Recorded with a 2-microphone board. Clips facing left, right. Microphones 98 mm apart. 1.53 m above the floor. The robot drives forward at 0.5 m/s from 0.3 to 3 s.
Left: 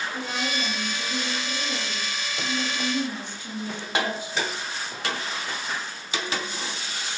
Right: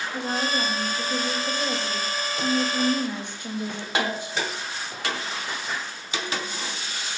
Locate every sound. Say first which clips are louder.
0.1 s a woman speaking: right 3 dB; 50° right (ahead or behind), 4 m; by 4.4 s 70° right (ahead or behind), 3 m